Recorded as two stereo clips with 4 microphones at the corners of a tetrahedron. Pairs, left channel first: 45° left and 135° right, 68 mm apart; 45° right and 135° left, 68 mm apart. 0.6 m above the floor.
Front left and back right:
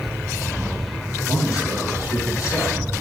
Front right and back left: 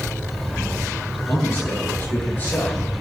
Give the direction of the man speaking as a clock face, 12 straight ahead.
12 o'clock.